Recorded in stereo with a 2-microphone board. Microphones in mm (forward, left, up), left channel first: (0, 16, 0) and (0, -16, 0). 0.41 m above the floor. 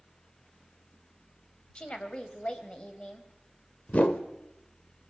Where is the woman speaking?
30° left (ahead or behind), 2.5 m.